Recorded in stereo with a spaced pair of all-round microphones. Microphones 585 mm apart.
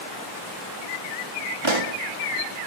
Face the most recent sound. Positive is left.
turn(degrees=-50)  # may be behind; listen again after turning